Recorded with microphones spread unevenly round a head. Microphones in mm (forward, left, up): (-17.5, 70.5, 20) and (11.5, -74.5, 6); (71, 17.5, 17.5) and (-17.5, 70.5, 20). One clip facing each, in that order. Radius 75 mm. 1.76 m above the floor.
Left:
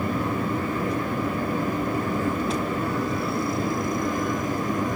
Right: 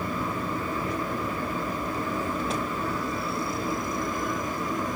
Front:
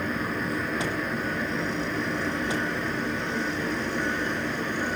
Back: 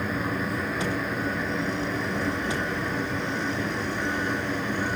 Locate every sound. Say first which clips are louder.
0.0 s a fan: left 4 dB, back 1 dB; 60° left, 1.6 m